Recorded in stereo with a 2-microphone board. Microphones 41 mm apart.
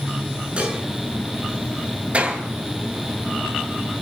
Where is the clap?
30° right (ahead or behind), 9 m.